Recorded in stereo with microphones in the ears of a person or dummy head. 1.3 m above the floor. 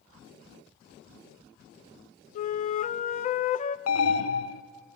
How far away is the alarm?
About 0.7 m.